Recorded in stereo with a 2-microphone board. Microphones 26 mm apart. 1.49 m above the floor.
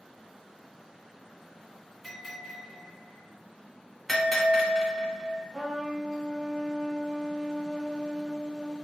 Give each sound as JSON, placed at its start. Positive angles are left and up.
{"t": 2.0, "sound": "a bell", "side_deg": 0, "distance_m": 1.2}
{"t": 4.1, "sound": "a bell", "side_deg": 10, "distance_m": 1.1}
{"t": 5.5, "sound": "a trumpet", "side_deg": -25, "distance_m": 1.4}